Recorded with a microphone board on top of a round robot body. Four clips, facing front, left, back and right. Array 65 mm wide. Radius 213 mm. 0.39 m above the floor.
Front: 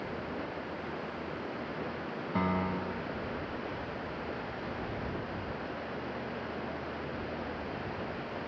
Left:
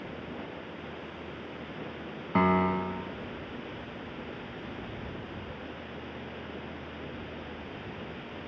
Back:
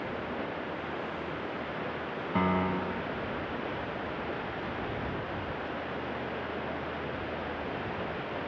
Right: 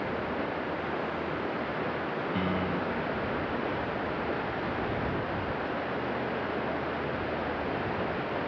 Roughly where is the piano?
Left.